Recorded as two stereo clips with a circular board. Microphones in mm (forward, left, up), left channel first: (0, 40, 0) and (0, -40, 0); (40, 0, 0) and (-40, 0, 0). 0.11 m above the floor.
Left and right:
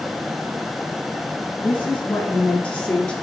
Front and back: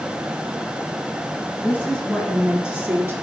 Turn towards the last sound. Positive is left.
turn(degrees=150)